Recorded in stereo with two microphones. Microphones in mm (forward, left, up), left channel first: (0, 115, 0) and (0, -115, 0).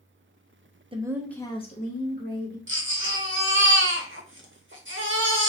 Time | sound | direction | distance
0.9 | a woman speaking | 25° right (ahead or behind) | 0.5 m
2.7 | a baby crying | 60° right (ahead or behind) | 0.8 m